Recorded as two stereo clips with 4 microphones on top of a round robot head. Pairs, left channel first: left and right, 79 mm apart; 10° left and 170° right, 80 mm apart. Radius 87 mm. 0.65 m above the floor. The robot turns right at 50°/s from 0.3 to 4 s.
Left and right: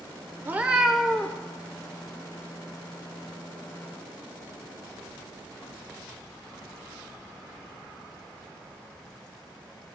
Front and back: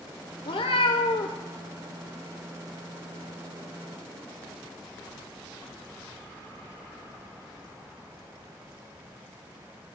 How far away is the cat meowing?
About 0.6 m.